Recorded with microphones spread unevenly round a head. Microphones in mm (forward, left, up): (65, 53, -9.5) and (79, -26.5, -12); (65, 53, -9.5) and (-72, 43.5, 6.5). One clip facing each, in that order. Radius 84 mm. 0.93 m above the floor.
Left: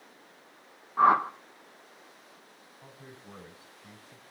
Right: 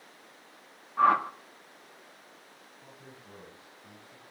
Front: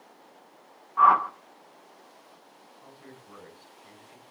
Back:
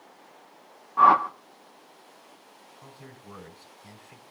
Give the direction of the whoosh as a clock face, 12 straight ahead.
7 o'clock.